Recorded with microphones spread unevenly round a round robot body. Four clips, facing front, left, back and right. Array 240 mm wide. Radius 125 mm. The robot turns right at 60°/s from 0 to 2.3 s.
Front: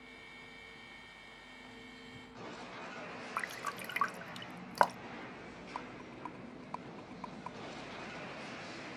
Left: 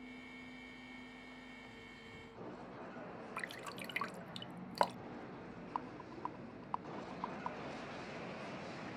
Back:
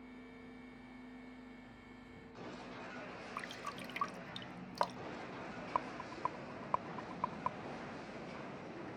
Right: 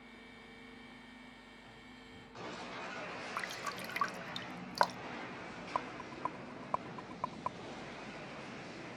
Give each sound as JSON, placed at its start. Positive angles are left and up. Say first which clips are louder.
{"t": 3.4, "sound": "dripping", "louder": "right 6 dB, front 6 dB", "azimuth_deg": 15}
{"t": 5.8, "sound": "a rattle", "louder": "right 5 dB, back 7 dB", "azimuth_deg": -140}